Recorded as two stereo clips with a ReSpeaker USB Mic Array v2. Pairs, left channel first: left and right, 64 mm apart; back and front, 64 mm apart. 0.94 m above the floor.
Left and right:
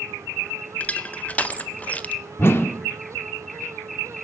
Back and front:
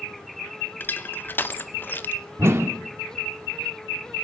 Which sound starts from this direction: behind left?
Crushing, at 0.8 s.